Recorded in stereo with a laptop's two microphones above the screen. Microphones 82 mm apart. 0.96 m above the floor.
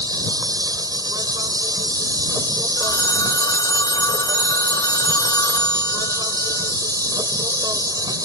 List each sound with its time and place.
0.0 s an insect: 55° right (ahead or behind)
2.8 s a phone ringing: 55° left (ahead or behind)